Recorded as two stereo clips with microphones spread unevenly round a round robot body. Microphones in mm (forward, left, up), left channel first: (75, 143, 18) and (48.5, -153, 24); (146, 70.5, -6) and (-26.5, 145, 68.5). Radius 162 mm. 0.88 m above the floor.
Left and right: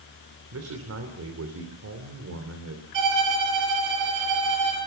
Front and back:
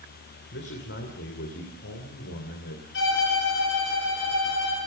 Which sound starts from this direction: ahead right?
A man speaking, at 0.5 s.